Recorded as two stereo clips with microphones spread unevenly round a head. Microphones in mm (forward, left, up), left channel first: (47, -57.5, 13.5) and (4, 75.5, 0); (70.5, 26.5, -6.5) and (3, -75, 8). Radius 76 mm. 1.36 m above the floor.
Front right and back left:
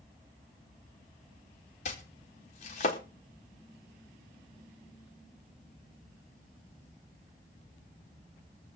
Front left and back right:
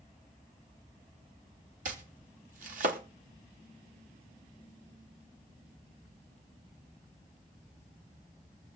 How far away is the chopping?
About 1.5 m.